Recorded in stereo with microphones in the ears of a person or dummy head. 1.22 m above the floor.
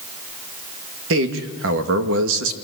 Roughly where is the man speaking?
Right.